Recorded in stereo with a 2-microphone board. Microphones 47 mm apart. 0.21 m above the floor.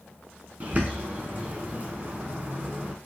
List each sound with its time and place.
0.6 s a bird: 40° right (ahead or behind), 0.7 m